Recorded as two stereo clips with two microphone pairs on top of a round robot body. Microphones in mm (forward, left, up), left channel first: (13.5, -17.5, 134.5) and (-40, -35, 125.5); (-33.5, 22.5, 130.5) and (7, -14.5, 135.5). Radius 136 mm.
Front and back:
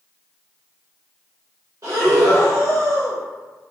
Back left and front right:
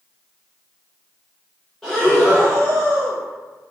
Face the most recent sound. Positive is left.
turn(degrees=-135)